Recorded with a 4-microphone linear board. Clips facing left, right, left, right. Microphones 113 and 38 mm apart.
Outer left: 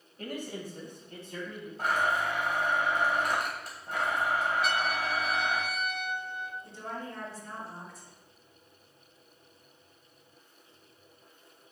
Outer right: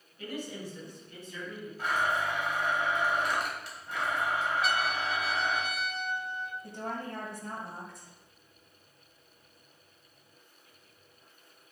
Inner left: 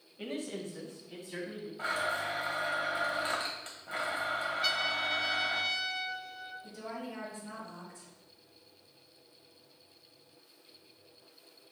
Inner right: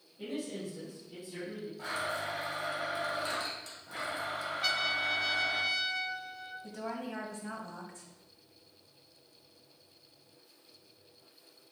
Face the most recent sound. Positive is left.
turn(degrees=-65)  # may be behind; listen again after turning